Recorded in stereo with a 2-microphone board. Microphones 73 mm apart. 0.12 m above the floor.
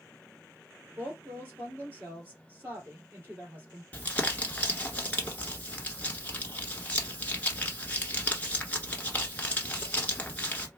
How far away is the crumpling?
About 1.2 m.